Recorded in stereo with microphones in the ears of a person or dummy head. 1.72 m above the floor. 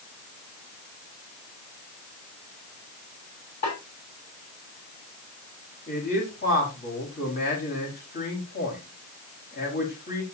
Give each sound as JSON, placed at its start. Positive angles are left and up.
{"t": 3.6, "sound": "a snare drum", "side_deg": 40, "distance_m": 8.5}
{"t": 5.9, "sound": "a man speaking", "side_deg": 45, "distance_m": 5.0}